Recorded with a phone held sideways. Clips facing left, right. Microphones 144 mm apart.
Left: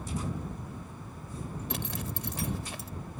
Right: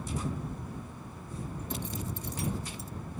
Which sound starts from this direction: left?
A zipper, at 1.7 s.